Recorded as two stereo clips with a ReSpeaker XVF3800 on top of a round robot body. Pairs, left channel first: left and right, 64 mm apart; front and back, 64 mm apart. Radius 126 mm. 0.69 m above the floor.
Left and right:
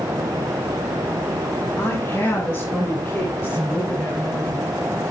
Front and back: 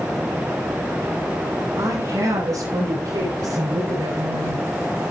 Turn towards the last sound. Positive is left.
turn(degrees=160)